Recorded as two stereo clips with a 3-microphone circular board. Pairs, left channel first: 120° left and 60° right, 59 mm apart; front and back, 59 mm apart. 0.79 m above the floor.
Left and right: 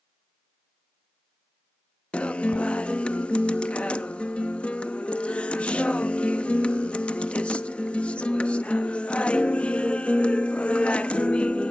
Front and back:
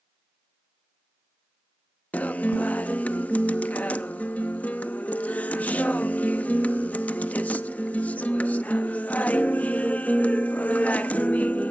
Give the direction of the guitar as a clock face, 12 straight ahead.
10 o'clock.